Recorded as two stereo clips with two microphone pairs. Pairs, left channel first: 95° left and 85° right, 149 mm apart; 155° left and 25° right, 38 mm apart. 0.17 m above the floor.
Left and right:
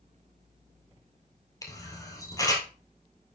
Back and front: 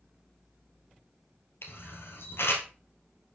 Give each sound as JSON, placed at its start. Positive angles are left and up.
{"t": 1.6, "sound": "a camera shutter", "azimuth_deg": 160, "distance_m": 1.7}